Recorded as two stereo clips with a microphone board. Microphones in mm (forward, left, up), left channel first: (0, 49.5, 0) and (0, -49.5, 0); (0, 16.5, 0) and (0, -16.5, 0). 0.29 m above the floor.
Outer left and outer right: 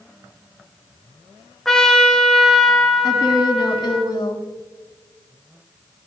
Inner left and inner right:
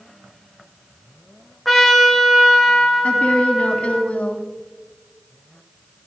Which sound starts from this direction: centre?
A trumpet, at 1.6 s.